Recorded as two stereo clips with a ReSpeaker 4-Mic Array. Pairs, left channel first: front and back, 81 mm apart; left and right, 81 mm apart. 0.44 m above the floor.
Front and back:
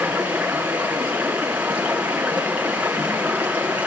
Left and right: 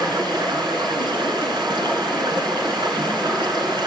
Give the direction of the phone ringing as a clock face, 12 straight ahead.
I don't hear a phone ringing.